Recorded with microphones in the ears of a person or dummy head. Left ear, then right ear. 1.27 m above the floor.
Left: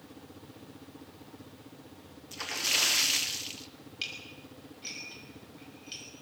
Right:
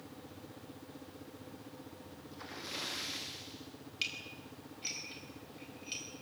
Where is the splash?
65° left (ahead or behind), 1.1 m.